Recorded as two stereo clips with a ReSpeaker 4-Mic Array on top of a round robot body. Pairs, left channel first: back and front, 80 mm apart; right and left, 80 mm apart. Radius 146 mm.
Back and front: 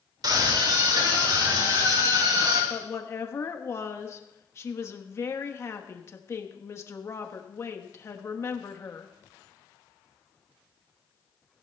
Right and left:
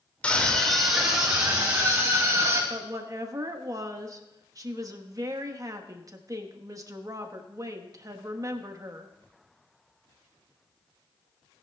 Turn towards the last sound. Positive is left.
turn(degrees=130)